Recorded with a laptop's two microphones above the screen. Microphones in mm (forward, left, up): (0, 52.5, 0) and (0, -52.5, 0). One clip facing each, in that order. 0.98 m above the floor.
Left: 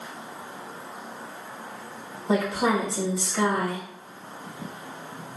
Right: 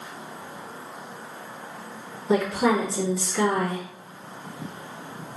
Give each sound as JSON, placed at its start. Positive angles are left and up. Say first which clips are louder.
{"t": 2.3, "sound": "a woman speaking", "louder": "right 2 dB", "side_deg": 30, "distance_m": 1.0}